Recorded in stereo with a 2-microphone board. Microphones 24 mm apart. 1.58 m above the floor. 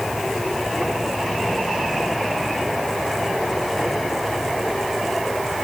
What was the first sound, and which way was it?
Only background noise.